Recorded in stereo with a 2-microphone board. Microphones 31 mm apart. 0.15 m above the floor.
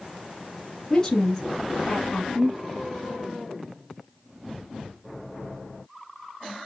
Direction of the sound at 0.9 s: 20° left (ahead or behind).